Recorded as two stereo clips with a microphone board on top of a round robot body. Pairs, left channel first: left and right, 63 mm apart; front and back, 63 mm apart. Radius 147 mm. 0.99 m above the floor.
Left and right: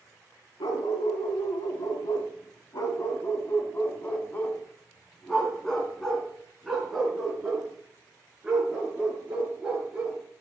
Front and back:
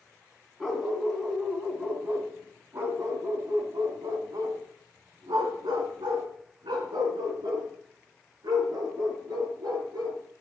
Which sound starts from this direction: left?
A dog barking, at 0.6 s.